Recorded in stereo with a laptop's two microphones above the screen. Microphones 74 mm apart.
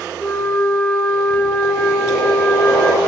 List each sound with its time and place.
0.2 s a flute: 20° left (ahead or behind), 2.5 m